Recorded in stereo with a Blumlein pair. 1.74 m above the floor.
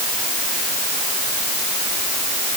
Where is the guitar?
No guitar in this recording.